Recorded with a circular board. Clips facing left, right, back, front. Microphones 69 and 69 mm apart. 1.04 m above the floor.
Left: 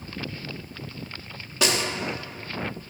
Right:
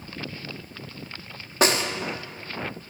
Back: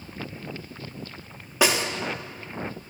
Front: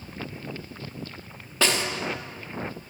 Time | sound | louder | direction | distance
1.6 | a snare drum | right 3 dB, back 2 dB | 110° right | 0.6 m